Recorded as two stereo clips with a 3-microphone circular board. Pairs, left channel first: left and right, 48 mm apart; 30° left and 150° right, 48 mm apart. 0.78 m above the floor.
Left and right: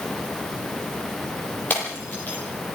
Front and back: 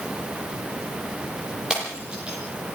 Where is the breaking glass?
140° left, 10 m.